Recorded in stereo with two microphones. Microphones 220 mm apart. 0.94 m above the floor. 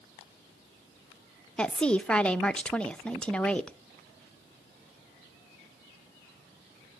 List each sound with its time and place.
1.6 s a woman speaking: 5° left (ahead or behind), 0.6 m